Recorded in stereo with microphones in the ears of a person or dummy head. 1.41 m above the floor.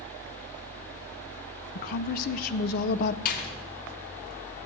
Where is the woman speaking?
50° left (ahead or behind), 0.6 m.